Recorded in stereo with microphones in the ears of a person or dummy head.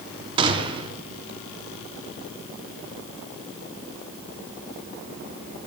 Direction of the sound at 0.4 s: 25° right (ahead or behind).